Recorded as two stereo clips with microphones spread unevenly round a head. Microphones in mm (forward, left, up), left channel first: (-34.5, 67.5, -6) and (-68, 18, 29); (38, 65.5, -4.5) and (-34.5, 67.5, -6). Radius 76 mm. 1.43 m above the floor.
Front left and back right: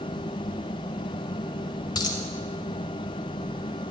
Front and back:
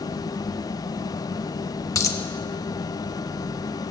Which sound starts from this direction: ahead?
A dropped coin, at 1.9 s.